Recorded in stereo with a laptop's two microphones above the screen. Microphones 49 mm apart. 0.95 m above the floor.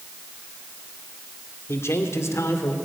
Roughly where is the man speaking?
Left.